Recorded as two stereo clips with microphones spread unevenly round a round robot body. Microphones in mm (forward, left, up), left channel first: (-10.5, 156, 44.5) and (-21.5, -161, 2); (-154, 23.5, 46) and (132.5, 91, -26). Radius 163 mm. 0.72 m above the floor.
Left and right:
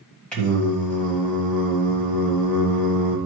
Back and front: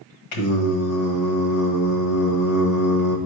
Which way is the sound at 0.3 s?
175° left.